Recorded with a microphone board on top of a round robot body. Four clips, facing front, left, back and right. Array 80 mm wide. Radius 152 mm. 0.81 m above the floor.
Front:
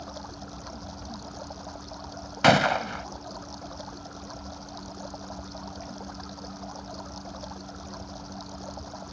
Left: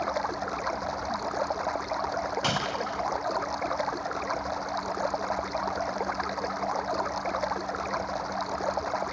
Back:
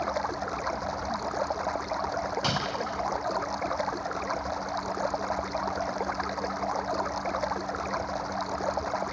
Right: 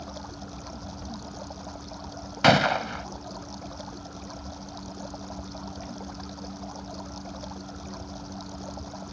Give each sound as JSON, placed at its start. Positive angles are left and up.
{"t": 0.0, "sound": "running water", "azimuth_deg": 140}
{"t": 2.4, "sound": "a gunshot", "azimuth_deg": -35}